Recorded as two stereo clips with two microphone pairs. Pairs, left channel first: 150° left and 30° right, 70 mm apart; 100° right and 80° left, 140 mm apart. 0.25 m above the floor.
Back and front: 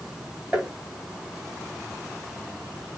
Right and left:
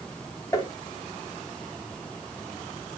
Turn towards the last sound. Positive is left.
turn(degrees=-85)